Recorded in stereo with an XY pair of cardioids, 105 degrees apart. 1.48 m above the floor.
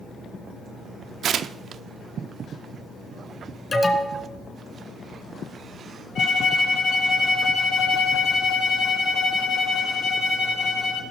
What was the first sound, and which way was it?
Tearing paper, 60° right.